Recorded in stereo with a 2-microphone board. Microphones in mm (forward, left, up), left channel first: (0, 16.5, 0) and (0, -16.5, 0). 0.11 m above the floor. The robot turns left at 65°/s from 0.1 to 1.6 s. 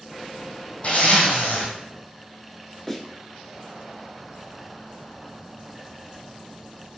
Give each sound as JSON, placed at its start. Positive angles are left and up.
{"t": 0.8, "sound": "a zipper", "azimuth_deg": 130, "distance_m": 1.6}
{"t": 2.9, "sound": "a snare drum", "side_deg": 10, "distance_m": 1.3}